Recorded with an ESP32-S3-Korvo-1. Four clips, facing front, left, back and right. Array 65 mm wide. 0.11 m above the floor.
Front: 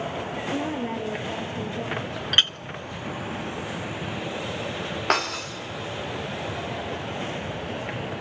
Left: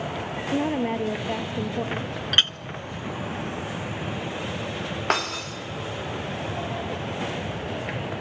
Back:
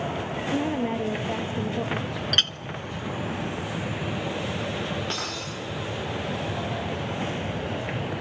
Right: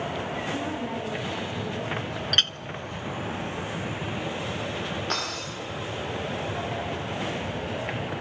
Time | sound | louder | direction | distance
0.5 | a woman speaking | left 6 dB, back 3 dB | 100° left | 2.5 m
2.3 | a clink | left 3 dB, front 4 dB | 40° left | 0.7 m
5.1 | breaking glass | left 5 dB, front 7 dB | 40° left | 8.5 m